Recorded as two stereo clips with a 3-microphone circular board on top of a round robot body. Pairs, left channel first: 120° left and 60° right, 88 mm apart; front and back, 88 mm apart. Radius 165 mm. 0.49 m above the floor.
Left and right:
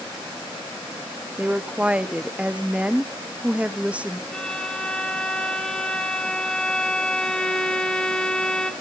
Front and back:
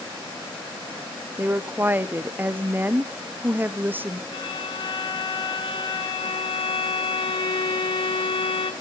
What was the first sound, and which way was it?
A woman speaking, 130° right.